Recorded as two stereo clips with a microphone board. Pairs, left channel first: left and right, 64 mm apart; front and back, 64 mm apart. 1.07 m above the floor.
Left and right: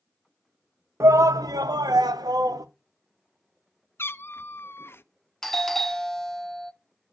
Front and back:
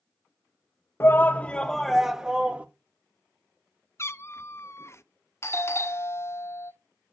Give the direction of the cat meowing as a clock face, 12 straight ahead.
11 o'clock.